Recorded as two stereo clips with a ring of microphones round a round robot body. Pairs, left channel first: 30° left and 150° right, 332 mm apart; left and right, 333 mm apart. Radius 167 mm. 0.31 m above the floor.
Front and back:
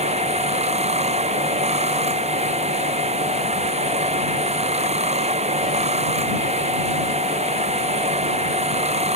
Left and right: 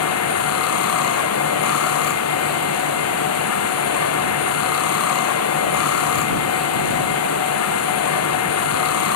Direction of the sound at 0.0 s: 140° left.